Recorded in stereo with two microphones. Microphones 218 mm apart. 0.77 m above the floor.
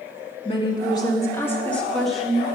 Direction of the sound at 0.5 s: 25° left (ahead or behind).